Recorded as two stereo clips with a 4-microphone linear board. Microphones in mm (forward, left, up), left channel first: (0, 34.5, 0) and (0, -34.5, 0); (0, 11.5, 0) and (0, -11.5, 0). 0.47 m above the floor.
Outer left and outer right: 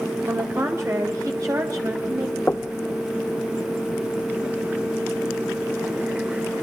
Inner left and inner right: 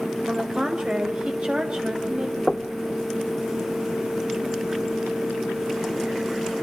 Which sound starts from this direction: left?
Knocking, at 2.5 s.